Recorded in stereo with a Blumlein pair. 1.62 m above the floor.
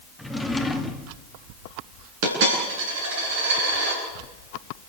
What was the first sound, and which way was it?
A drawer, 5° left.